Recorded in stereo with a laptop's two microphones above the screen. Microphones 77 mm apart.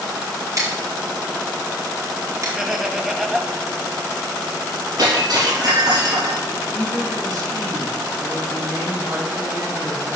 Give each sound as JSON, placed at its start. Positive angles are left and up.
{"t": 0.6, "sound": "scissors", "side_deg": -45, "distance_m": 3.0}
{"t": 2.6, "sound": "laughter", "side_deg": -5, "distance_m": 1.0}
{"t": 5.0, "sound": "breaking glass", "side_deg": -55, "distance_m": 4.0}
{"t": 6.7, "sound": "a woman speaking", "side_deg": -50, "distance_m": 5.5}